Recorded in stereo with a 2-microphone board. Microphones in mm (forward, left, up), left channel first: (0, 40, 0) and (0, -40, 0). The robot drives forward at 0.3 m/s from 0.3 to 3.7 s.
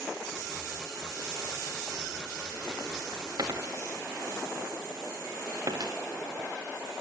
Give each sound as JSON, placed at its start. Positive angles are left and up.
{"t": 3.4, "sound": "a dropped coin", "side_deg": -55, "distance_m": 3.0}